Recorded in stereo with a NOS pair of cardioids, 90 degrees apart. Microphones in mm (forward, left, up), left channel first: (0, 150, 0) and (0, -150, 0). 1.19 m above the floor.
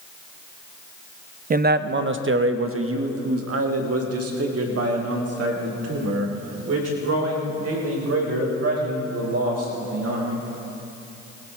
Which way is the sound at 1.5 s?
30° right.